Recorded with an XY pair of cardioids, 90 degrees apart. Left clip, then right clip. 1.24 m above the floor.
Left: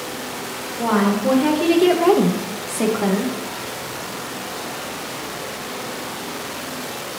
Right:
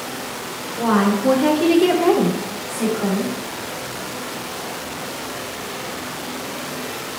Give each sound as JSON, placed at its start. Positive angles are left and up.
{"t": 0.8, "sound": "a woman speaking", "azimuth_deg": -20, "distance_m": 1.4}